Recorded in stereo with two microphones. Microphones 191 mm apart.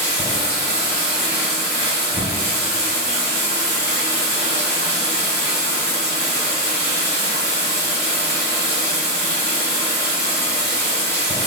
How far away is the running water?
About 1.9 m.